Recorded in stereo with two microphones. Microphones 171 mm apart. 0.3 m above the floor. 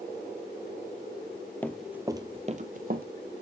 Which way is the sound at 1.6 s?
10° left (ahead or behind).